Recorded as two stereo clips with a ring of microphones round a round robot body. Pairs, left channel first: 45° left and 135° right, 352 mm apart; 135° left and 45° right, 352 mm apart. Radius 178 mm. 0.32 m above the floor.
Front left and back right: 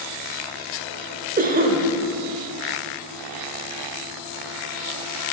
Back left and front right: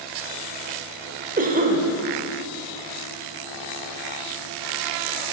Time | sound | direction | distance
1.4 | a cough | 90° right | 1.0 m